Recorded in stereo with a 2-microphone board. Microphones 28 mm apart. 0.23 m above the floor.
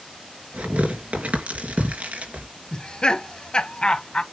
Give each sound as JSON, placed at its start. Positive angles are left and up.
{"t": 0.5, "sound": "tearing paper", "side_deg": -70, "distance_m": 3.5}
{"t": 2.7, "sound": "laughter", "side_deg": 35, "distance_m": 1.2}